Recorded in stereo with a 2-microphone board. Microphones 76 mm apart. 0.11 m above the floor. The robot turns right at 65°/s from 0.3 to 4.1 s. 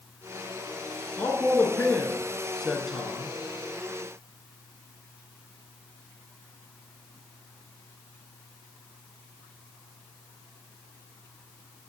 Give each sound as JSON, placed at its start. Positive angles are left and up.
{"t": 1.2, "sound": "a man speaking", "side_deg": 25, "distance_m": 1.1}